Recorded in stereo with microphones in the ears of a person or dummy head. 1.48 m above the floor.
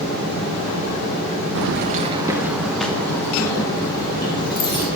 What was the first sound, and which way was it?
Keys jangling, 65° right (ahead or behind).